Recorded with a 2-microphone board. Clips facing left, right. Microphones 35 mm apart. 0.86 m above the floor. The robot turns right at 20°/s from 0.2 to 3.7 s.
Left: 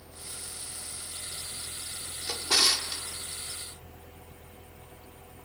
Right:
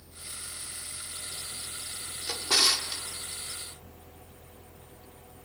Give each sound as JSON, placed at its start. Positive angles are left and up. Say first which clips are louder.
{"t": 2.3, "sound": "a drawer", "louder": "even", "side_deg": -25, "distance_m": 0.8}